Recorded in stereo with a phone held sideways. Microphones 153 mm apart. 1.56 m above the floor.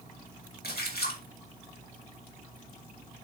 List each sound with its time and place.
0.6 s a splash: 85° left, 3.5 m